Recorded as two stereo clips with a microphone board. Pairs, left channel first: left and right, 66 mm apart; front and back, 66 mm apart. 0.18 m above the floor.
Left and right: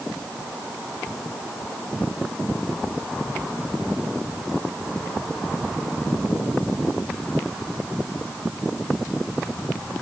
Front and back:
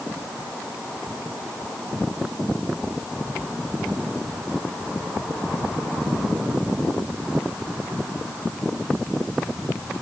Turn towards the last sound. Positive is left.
No sound to turn to.